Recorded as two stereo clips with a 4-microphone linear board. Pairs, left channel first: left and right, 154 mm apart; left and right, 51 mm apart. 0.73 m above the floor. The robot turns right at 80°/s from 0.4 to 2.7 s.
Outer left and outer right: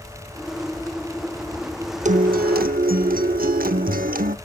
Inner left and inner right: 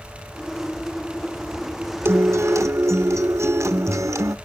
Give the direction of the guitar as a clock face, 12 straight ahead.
4 o'clock.